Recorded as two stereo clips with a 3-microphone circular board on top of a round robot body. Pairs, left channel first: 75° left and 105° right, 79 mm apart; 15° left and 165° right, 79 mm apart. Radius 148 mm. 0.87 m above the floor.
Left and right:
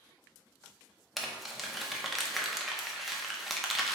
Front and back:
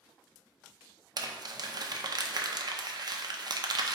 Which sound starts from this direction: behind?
Crumpling, at 1.2 s.